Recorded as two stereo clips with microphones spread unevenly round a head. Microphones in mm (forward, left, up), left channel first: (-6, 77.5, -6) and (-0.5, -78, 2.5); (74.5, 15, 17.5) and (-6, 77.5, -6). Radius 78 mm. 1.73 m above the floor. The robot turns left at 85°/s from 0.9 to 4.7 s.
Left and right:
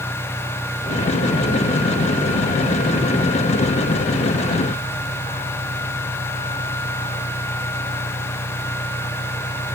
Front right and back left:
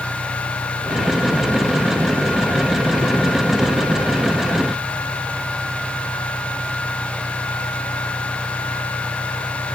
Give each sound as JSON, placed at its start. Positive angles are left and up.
{"t": 0.0, "sound": "an engine running", "azimuth_deg": 10}